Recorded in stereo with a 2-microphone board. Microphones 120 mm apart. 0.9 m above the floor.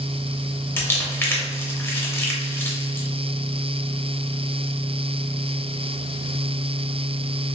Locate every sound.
0.8 s crumpling: 20° left (ahead or behind), 0.7 m